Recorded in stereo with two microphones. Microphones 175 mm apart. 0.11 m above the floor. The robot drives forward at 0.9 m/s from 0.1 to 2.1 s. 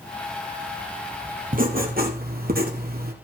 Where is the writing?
55° right (ahead or behind), 2.0 m; by 3.1 s 60° right (ahead or behind), 1.8 m.